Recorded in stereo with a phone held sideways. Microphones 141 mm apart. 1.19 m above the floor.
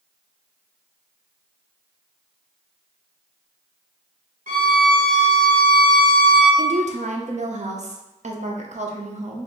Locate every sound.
4.5 s a violin: 75° right (ahead or behind), 1.2 m
6.6 s a woman speaking: 55° right (ahead or behind), 0.7 m